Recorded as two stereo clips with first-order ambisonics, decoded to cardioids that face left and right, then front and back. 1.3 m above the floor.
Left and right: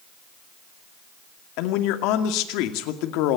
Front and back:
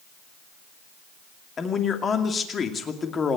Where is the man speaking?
70° left, 2.5 m.